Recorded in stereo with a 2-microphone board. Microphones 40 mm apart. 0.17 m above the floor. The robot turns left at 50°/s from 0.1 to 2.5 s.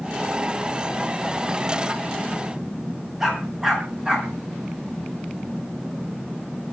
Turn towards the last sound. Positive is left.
turn(degrees=-15)  # may be behind; listen again after turning